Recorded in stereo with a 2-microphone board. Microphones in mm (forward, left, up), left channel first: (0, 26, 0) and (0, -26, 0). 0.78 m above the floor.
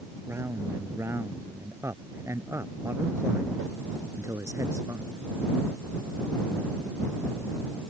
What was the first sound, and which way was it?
A man speaking, 60° right (ahead or behind).